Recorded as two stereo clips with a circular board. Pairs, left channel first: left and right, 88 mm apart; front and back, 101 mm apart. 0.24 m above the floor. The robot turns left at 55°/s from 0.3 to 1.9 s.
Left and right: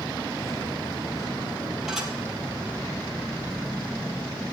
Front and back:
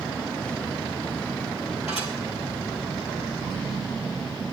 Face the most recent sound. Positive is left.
turn(degrees=-5)